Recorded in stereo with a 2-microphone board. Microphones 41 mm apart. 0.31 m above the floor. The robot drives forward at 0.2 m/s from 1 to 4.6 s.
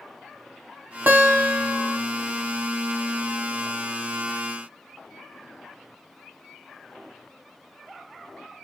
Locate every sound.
1.1 s a guitar: 40° right (ahead or behind), 0.8 m; by 2.0 s 35° right (ahead or behind), 1.0 m